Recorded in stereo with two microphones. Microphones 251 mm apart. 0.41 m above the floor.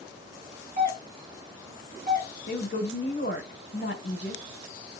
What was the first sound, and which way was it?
A doorbell, 35° right (ahead or behind).